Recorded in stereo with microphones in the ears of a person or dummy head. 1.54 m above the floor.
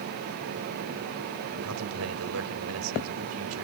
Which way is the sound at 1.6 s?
80° right.